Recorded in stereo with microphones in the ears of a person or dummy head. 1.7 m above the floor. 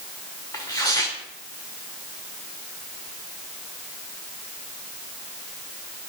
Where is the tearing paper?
15° left (ahead or behind), 1.1 m.